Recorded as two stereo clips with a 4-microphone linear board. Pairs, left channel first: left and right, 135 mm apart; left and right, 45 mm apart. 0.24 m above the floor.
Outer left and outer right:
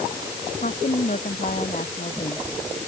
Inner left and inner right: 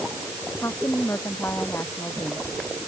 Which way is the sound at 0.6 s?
80° left.